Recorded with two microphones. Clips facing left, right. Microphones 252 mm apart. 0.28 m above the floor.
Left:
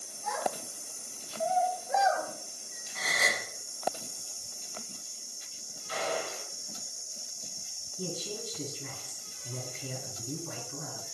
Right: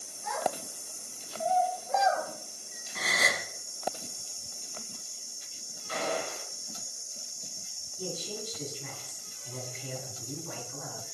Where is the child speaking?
60° left (ahead or behind), 1.8 m; by 2.3 s 5° right (ahead or behind), 1.0 m.